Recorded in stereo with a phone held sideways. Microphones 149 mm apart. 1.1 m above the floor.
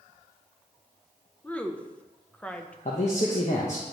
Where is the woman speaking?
10° left (ahead or behind), 0.6 m.